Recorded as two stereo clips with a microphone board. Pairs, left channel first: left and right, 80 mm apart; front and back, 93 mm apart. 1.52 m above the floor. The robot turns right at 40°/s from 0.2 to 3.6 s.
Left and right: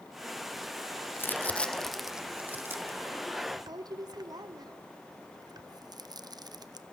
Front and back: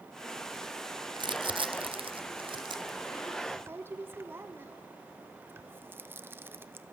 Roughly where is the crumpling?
Behind left.